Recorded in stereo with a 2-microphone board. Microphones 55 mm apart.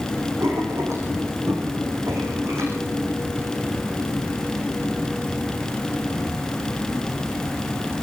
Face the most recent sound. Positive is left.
turn(degrees=-55)  # may be behind; listen again after turning